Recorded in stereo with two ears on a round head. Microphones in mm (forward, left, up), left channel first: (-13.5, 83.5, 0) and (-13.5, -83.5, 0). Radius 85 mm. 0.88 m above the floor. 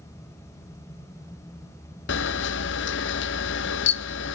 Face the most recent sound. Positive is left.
turn(degrees=70)  # may be behind; listen again after turning